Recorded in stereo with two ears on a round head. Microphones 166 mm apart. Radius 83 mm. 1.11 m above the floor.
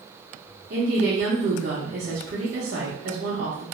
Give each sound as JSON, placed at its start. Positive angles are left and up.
{"t": 0.7, "sound": "a woman speaking", "side_deg": -55, "distance_m": 0.8}